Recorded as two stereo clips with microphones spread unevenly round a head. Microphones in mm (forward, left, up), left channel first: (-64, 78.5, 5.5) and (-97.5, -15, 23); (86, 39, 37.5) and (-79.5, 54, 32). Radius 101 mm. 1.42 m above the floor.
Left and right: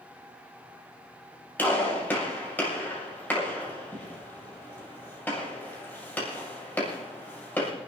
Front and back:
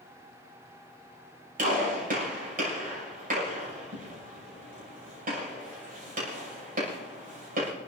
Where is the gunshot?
140° left, 7.5 m.